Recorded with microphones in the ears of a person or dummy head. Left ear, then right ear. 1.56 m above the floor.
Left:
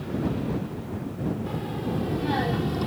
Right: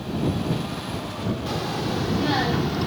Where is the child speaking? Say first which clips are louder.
Right 5 dB; 40° right (ahead or behind); by 2.9 s 5° right (ahead or behind).